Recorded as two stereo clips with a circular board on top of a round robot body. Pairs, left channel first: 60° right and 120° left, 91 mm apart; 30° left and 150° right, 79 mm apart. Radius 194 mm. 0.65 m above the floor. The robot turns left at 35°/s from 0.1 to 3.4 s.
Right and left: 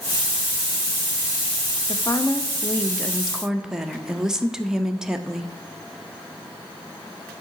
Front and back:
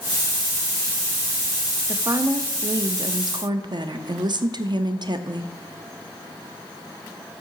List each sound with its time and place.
1.9 s a woman speaking: 105° right, 0.8 m; by 5.5 s 155° right, 0.8 m